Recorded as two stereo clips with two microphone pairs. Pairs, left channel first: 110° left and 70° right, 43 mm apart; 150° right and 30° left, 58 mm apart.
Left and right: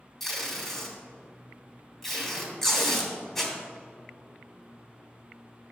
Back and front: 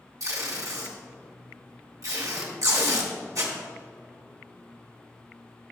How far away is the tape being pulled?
About 2.5 m.